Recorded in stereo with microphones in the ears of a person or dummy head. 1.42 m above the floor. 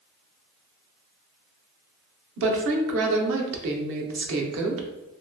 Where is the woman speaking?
70° right (ahead or behind), 0.8 m.